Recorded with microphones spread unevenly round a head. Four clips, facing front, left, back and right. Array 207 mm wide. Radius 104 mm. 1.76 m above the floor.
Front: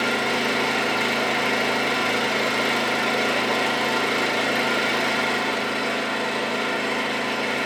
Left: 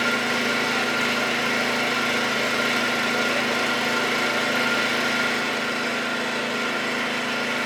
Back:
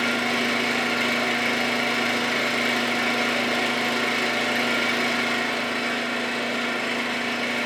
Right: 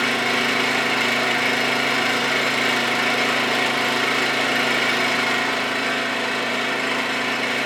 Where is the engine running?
60° right, 1.5 m.